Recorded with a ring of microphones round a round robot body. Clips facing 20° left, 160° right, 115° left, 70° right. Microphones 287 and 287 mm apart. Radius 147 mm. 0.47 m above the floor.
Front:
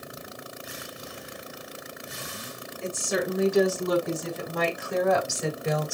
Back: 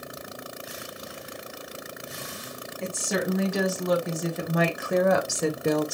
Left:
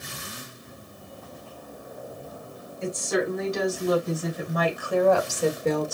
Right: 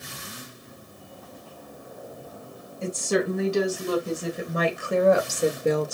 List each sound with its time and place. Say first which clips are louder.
2.8 s a woman speaking: even, right 1 dB; 125° right, 5 m; by 5.9 s 155° right, 1.5 m